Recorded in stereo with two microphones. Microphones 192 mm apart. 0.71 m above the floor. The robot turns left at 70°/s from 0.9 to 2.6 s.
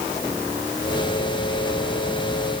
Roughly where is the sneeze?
I don't hear a sneeze.